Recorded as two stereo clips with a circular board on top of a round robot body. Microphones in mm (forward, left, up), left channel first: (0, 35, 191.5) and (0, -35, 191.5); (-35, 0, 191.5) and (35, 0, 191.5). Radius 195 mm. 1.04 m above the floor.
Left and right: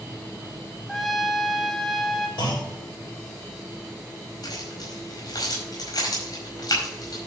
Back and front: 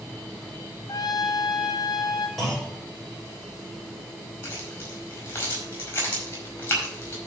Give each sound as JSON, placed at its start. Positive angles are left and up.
{"t": 0.9, "sound": "a trumpet", "azimuth_deg": 175, "distance_m": 1.5}
{"t": 2.4, "sound": "a clunk", "azimuth_deg": 95, "distance_m": 6.5}
{"t": 4.4, "sound": "keys jangling", "azimuth_deg": 120, "distance_m": 4.5}